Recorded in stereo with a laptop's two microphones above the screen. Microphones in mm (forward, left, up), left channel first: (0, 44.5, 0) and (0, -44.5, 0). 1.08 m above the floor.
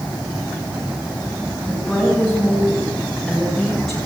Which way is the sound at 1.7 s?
5° right (ahead or behind).